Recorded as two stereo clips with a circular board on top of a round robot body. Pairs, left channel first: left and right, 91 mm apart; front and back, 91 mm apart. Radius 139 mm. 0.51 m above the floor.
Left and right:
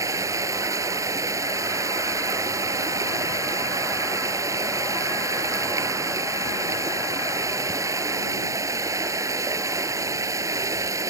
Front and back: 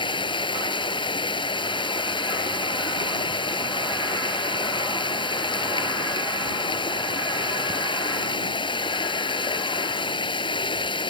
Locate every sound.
0.0 s running water: 35° right